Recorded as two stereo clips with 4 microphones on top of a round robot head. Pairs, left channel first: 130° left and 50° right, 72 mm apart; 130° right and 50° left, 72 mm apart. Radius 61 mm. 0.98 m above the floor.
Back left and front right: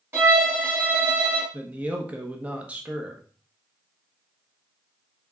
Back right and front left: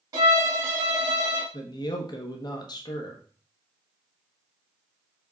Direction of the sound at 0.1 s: 5° left.